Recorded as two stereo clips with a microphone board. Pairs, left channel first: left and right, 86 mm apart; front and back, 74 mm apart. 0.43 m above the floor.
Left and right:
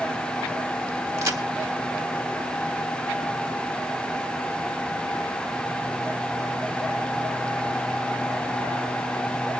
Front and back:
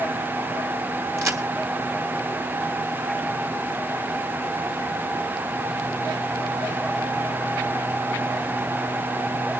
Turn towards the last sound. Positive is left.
turn(degrees=-140)